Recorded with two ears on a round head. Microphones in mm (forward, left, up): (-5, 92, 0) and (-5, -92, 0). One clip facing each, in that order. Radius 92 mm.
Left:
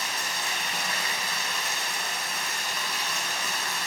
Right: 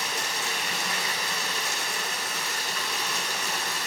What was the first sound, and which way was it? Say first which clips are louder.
Running water: right 2 dB; 60° right (ahead or behind).